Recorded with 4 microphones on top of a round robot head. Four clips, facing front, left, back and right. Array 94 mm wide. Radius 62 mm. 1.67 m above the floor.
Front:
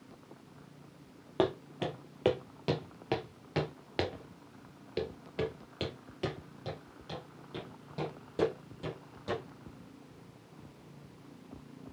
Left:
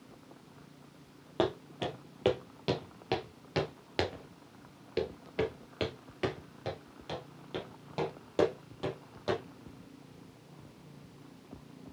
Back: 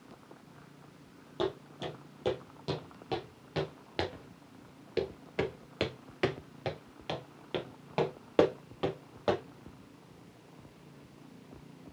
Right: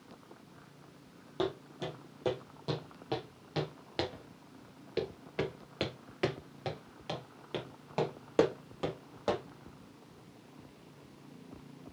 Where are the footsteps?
35° left, 2.5 m; by 9.4 s 160° right, 3 m.